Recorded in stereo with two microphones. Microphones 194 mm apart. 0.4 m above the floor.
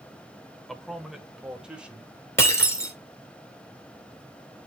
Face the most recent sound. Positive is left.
turn(degrees=15)  # may be behind; listen again after turning